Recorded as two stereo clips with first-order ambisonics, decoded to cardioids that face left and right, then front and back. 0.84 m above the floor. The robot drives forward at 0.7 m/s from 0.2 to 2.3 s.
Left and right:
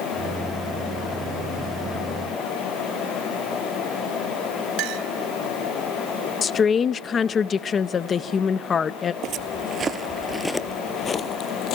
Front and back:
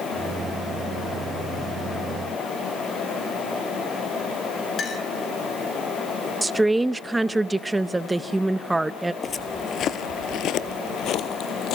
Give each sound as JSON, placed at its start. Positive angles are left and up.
{"t": 4.8, "sound": "a clink", "azimuth_deg": -65, "distance_m": 3.0}
{"t": 6.4, "sound": "a woman speaking", "azimuth_deg": 105, "distance_m": 0.6}
{"t": 9.2, "sound": "footsteps", "azimuth_deg": -65, "distance_m": 1.1}